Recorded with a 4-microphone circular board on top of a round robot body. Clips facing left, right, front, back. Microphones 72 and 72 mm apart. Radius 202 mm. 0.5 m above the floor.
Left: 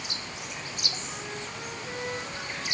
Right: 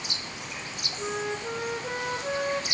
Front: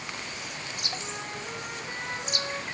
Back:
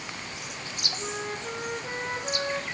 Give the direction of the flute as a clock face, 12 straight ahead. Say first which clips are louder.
Right 7 dB, back 3 dB; 4 o'clock.